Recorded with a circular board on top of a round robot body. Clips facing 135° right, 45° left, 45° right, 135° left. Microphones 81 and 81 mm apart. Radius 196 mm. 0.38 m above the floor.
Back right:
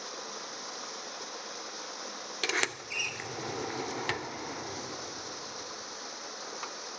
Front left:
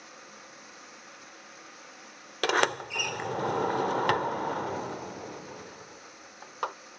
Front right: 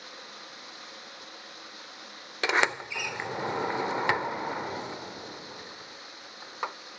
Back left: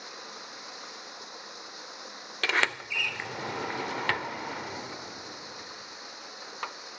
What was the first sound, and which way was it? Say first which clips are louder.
Running water: back right 7 dB, back left 2 dB; 155° right.